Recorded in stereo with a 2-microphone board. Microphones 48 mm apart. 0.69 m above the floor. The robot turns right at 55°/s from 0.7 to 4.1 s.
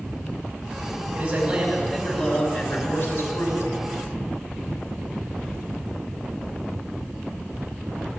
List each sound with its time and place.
1.1 s a man speaking: 30° right, 5 m; by 3.9 s 115° left, 5 m